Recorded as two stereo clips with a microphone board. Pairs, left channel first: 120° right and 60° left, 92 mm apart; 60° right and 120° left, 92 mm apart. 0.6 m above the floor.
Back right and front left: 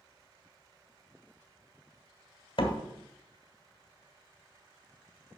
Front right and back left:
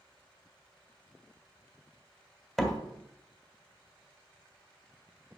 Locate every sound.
2.6 s a door slam: 145° right, 1.9 m